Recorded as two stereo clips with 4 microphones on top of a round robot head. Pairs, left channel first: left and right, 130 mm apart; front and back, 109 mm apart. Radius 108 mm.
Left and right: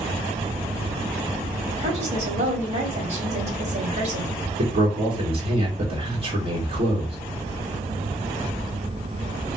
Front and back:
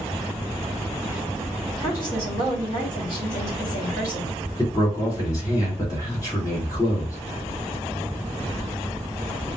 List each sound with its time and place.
1.8 s a woman speaking: 55° right, 2.5 m
4.6 s a man speaking: 55° right, 2 m